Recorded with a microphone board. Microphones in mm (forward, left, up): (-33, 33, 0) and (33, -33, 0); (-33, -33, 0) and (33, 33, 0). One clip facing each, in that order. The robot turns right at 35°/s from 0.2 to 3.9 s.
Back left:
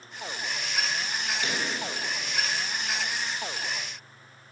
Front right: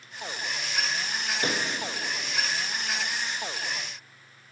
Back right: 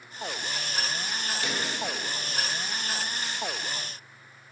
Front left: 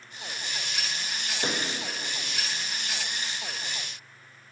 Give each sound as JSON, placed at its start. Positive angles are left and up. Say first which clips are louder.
{"t": 1.4, "sound": "a pop", "louder": "front right 4 dB, front left 3 dB", "azimuth_deg": -5, "distance_m": 0.6}